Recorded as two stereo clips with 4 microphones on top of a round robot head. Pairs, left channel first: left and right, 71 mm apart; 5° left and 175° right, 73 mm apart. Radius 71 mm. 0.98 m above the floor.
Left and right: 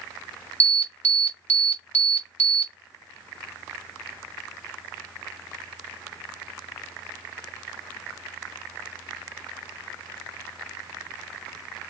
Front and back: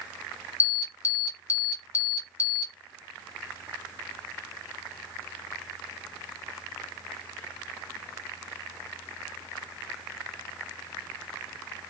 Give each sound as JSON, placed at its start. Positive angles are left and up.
{"t": 0.6, "sound": "an alarm", "azimuth_deg": 25, "distance_m": 1.3}